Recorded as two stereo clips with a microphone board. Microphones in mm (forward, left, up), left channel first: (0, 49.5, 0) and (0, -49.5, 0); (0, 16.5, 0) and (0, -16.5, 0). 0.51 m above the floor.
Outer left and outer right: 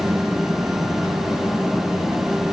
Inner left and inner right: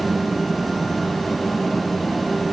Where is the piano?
I don't hear a piano.